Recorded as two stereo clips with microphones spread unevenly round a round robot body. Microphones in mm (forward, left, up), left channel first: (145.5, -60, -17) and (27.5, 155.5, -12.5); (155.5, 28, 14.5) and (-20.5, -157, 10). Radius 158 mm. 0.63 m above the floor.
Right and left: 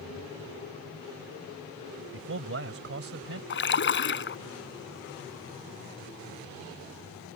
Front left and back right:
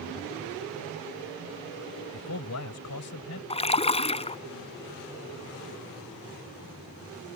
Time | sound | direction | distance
2.1 | a man speaking | 90° left | ?
3.5 | a splash | 20° right | ?